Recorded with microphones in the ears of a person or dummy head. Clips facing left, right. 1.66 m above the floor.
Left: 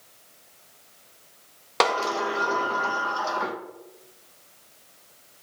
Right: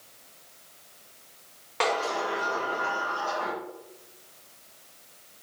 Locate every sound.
1.8 s a sliding door: 65° left (ahead or behind), 0.7 m